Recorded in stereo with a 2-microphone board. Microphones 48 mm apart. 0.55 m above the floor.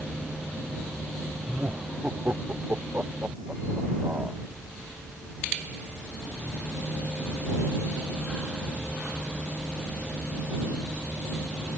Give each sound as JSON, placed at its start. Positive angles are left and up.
{"t": 1.4, "sound": "laughter", "side_deg": -40}